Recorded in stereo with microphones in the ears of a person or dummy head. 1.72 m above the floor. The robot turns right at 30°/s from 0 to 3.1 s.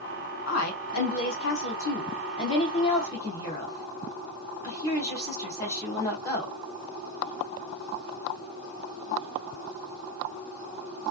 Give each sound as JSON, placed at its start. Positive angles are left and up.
{"t": 0.5, "sound": "a woman speaking", "side_deg": 80, "distance_m": 1.4}